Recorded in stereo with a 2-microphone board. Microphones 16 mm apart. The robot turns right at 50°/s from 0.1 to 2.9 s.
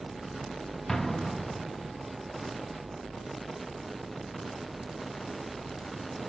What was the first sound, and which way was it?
An explosion, 20° left.